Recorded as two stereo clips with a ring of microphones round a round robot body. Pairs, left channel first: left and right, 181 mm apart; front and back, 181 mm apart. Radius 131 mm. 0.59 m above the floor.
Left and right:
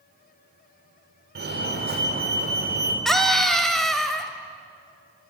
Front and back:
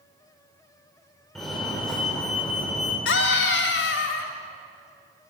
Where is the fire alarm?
90° right, 3.5 m.